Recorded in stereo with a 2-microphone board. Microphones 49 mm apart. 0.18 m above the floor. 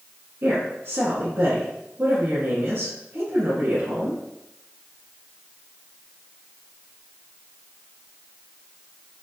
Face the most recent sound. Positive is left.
turn(degrees=-45)  # may be behind; listen again after turning